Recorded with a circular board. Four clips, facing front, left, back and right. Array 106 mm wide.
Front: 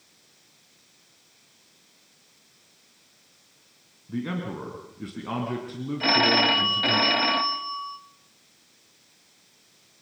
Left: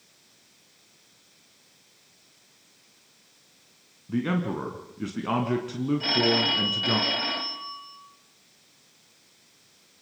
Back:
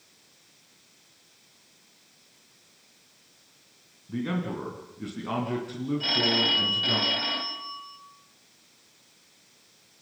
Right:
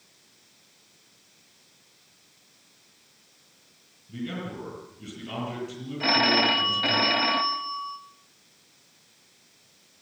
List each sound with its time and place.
4.1 s a man speaking: 85° left, 3 m
6.0 s a phone ringing: 30° right, 1.2 m